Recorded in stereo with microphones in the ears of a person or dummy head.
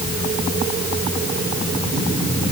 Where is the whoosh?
I don't hear a whoosh.